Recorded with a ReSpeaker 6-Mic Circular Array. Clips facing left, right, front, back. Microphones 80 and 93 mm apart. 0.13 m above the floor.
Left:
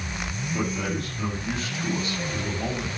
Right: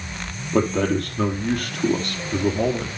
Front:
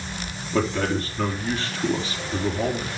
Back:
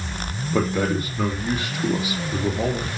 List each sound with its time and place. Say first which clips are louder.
0.5 s a man speaking: right 9 dB, back 1 dB; 105° right, 3.5 m